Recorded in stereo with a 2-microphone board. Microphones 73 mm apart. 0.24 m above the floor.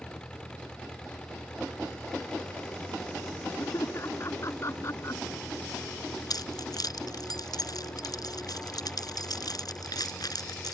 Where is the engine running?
15° left (ahead or behind).